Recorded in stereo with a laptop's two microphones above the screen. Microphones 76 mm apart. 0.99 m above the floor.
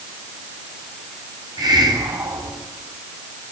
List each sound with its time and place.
1.6 s a hiss: 65° right (ahead or behind), 7.5 m